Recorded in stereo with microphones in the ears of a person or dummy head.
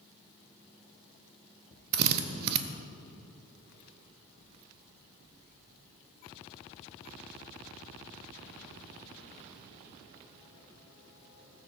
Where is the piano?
I don't hear a piano.